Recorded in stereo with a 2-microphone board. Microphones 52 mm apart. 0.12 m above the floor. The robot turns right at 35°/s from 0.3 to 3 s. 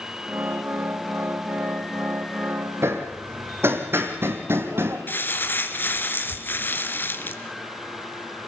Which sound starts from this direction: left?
Crumpling, at 5.1 s.